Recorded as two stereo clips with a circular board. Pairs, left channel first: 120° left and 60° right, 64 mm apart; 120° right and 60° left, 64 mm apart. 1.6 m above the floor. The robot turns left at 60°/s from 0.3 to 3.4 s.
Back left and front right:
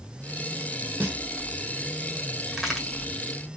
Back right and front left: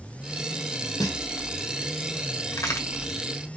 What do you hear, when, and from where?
1.0 s a snare drum: 120° right, 1.3 m; by 1.2 s 130° right, 1.3 m
2.5 s a crack: 140° right, 1.4 m; by 2.9 s 165° right, 1.4 m